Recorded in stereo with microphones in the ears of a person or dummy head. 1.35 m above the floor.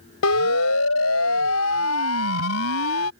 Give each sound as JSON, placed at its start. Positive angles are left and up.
{"t": 0.2, "sound": "a siren", "side_deg": 80}